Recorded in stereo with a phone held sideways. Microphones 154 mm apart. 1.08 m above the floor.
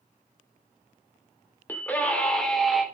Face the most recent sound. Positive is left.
turn(degrees=0)  # may be behind; listen again after turning